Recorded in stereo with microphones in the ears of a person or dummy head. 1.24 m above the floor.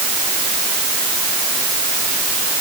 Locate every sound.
Only background noise.